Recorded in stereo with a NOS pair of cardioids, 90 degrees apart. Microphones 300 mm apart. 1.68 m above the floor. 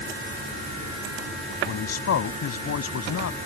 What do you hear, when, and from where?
1.7 s a man speaking: 55° left